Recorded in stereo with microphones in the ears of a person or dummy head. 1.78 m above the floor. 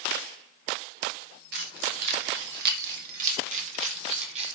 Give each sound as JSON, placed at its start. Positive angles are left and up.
{"t": 1.5, "sound": "keys jangling", "side_deg": -55, "distance_m": 1.6}